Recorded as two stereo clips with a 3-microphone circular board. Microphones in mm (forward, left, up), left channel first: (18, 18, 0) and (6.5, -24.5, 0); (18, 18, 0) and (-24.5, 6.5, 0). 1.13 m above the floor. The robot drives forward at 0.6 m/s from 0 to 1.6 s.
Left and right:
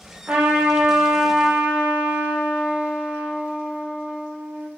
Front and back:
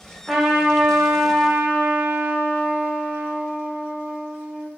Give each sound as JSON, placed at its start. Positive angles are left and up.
{"t": 0.3, "sound": "a trumpet", "azimuth_deg": -80, "distance_m": 0.6}